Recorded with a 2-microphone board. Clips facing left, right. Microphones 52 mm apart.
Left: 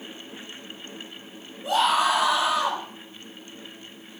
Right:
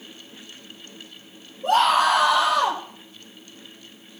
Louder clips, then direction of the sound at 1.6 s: Right 4 dB; 45° right (ahead or behind).